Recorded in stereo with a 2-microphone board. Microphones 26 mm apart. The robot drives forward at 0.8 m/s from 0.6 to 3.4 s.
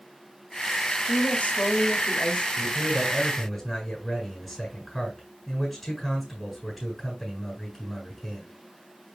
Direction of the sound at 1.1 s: 55° left (ahead or behind).